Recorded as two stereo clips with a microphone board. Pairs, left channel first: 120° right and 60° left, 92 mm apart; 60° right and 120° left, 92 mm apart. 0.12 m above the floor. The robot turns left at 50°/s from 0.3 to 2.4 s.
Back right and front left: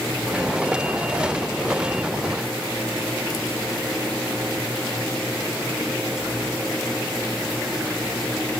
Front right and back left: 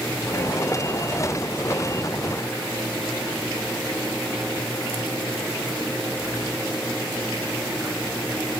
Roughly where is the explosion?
I don't hear an explosion.